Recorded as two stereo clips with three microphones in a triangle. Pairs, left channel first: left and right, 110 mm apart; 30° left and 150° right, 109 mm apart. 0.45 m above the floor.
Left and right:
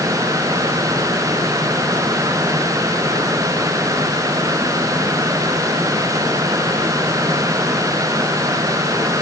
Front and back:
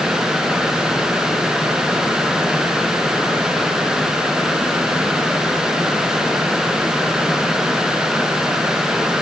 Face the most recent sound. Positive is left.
No sound to turn to.